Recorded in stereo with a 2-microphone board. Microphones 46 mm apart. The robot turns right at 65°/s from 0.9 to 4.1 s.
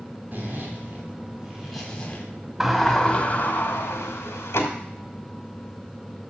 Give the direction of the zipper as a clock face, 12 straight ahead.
2 o'clock.